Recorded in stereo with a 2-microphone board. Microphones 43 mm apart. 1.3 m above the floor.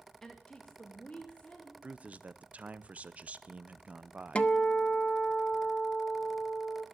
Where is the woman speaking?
15° left (ahead or behind), 1.1 m; by 1.7 s 35° left (ahead or behind), 3 m.